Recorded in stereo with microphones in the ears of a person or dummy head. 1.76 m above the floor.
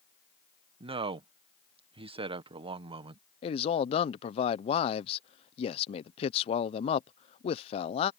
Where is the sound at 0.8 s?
30° right (ahead or behind).